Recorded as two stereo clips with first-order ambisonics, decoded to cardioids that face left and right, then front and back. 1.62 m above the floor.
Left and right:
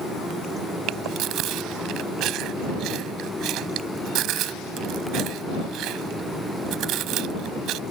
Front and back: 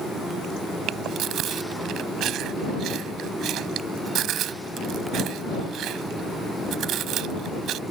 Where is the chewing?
130° right.